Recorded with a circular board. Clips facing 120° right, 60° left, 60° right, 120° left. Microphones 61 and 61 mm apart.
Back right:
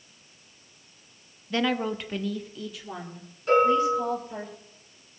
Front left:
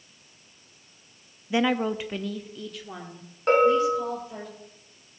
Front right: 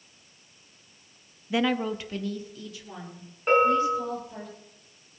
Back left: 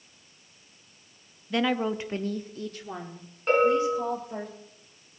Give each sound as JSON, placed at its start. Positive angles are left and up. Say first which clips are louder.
{"t": 1.5, "sound": "a woman speaking", "louder": "front left 2 dB, even", "azimuth_deg": 10, "distance_m": 0.6}
{"t": 3.5, "sound": "a bell", "louder": "front left 1 dB, front right 1 dB", "azimuth_deg": 25, "distance_m": 6.0}